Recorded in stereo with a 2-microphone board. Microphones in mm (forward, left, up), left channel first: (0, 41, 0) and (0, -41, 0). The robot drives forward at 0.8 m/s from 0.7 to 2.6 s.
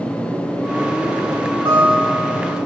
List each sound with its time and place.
1.6 s a guitar: 80° right, 9 m; by 2.6 s 75° right (ahead or behind), 9 m